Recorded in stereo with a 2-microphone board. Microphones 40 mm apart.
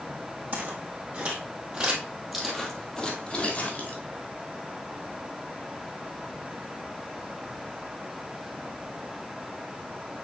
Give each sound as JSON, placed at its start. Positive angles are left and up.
{"t": 0.5, "sound": "footsteps", "side_deg": -45, "distance_m": 3.0}